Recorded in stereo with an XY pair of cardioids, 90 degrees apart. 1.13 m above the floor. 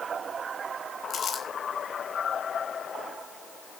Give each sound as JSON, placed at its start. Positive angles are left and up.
{"t": 1.1, "sound": "crumpling", "azimuth_deg": 55, "distance_m": 4.5}